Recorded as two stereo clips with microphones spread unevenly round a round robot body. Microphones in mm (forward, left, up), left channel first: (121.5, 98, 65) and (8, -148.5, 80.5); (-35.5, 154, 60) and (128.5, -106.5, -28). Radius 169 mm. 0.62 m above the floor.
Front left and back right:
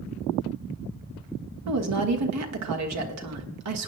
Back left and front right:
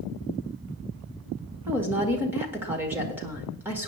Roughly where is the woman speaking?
Behind right.